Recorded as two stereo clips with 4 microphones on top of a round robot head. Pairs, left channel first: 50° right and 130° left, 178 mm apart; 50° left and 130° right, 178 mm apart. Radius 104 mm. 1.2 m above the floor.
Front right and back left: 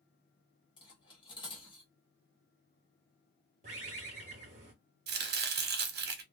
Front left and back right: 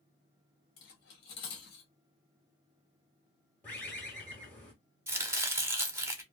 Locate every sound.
0.8 s cutlery clinking: 15° left, 0.9 m
3.6 s a bird: 125° left, 0.9 m
5.1 s chopping: 155° left, 0.7 m